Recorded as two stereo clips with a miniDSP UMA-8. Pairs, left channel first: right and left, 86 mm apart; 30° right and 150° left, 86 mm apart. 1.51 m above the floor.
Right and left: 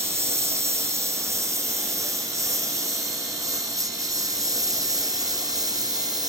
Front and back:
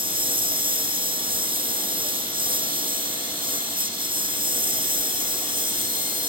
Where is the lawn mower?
150° left; by 6.3 s 135° left.